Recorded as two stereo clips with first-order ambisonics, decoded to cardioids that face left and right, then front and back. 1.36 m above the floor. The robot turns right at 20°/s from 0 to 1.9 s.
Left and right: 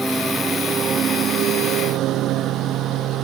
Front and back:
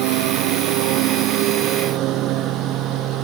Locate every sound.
0.0 s a lawn mower: 175° right; by 3.2 s 135° right